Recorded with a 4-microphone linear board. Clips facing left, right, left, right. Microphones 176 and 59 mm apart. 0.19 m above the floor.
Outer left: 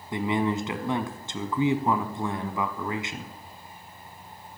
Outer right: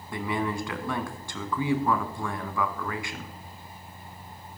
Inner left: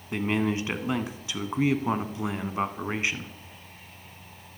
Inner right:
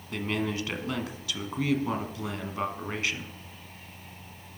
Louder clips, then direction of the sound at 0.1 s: Outer left 4 dB, inner left 4 dB; 20° left (ahead or behind).